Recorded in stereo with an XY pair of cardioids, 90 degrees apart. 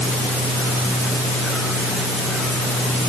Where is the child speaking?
No child speaking in this recording.